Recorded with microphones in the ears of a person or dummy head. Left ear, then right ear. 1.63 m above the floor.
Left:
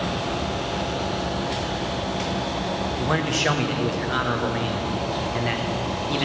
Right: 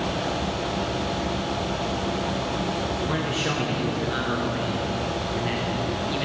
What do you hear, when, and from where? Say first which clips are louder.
3.0 s a man speaking: left 3 dB; 35° left (ahead or behind), 1.0 m